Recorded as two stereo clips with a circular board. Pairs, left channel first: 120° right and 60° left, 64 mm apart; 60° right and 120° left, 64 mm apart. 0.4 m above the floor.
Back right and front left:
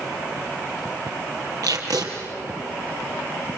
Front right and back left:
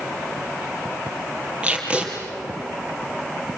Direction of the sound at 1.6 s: 45° left.